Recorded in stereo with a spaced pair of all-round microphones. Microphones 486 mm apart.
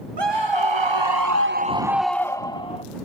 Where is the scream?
55° right (ahead or behind); by 2.8 s 10° left (ahead or behind).